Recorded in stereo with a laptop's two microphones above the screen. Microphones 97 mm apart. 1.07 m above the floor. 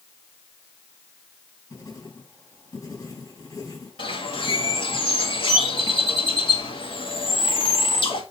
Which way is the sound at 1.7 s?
35° left (ahead or behind).